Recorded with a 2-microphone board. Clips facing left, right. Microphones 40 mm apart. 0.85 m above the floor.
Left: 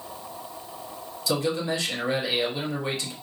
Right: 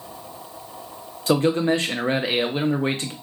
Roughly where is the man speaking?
Right.